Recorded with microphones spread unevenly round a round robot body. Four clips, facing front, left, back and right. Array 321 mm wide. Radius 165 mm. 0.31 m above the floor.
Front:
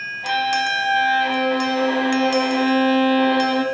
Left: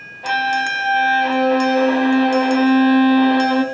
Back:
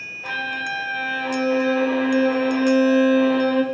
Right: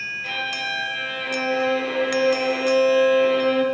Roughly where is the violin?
Left.